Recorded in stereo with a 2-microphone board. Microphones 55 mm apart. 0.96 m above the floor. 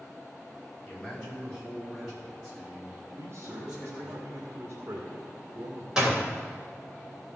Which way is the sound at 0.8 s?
15° left (ahead or behind).